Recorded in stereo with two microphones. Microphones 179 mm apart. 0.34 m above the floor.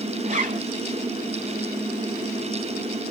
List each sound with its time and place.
0.2 s a zipper: 50° right (ahead or behind), 1.6 m